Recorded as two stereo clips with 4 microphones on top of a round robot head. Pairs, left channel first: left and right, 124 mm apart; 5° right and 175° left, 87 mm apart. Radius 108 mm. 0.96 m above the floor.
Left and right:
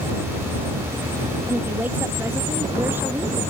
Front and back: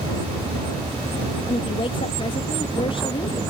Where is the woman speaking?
15° right.